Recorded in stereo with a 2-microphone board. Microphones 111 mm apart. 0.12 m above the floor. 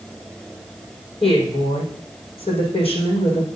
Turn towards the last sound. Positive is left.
turn(degrees=60)  # may be behind; listen again after turning